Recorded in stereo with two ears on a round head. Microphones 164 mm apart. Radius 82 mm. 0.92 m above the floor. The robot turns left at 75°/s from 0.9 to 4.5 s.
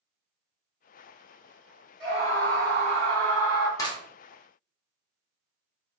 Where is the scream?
30° right, 1.6 m; by 3.7 s 155° right, 1.6 m.